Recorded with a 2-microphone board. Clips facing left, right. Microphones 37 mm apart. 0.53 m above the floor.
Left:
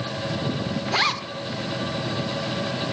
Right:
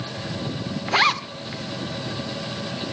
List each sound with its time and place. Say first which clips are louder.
0.9 s a zipper: right 5 dB; 20° right (ahead or behind), 0.8 m